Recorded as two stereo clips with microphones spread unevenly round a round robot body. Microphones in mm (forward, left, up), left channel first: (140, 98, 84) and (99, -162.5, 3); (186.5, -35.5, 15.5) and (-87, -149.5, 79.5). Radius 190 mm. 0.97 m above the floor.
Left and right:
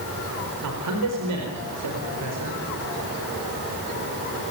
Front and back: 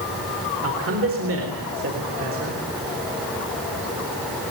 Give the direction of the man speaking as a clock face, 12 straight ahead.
4 o'clock.